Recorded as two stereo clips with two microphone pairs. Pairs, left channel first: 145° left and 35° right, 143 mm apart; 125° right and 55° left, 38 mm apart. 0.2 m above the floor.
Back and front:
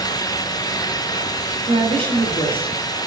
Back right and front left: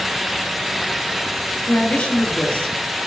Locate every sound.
1.7 s a woman speaking: 75° right, 4 m